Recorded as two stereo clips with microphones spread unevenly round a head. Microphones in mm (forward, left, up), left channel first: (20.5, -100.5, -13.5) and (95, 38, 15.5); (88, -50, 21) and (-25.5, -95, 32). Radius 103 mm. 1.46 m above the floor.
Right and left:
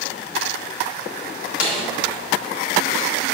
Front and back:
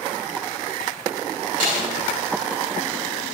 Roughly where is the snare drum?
Behind left.